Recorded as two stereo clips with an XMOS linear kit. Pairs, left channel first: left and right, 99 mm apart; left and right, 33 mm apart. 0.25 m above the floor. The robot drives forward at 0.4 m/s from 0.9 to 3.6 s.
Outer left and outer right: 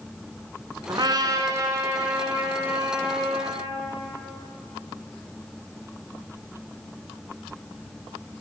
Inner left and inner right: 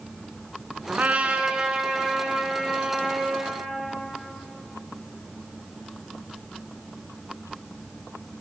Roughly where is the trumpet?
Right.